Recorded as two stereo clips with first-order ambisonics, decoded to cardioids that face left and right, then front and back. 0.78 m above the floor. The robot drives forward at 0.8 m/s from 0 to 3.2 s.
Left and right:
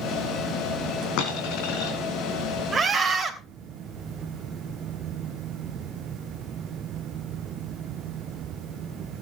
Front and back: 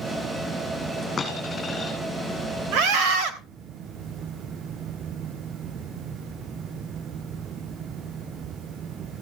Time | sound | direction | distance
1.2 | a dropped coin | 70° left | 4 m
2.7 | a scream | 160° right | 3 m